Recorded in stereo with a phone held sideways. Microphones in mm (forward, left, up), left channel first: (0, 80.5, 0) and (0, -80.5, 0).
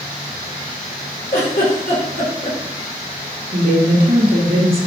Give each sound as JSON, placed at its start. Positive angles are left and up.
{"t": 1.3, "sound": "a giggle", "side_deg": 70, "distance_m": 3.5}
{"t": 3.5, "sound": "a woman speaking", "side_deg": -65, "distance_m": 2.0}